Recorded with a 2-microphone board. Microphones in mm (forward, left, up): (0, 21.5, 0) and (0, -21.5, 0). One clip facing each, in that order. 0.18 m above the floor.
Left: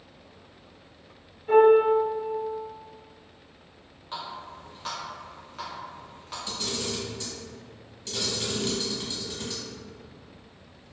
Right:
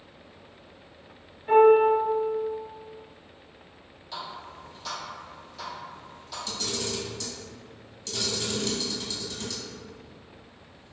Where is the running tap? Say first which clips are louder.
Left 1 dB; 40° left (ahead or behind), 1.2 m.